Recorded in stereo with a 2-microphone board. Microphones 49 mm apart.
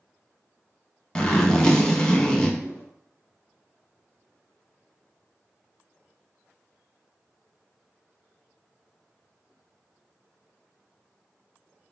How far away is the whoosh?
About 1.1 m.